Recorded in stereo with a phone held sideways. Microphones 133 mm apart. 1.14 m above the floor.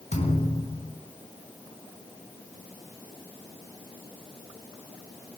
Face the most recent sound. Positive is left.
turn(degrees=55)  # may be behind; listen again after turning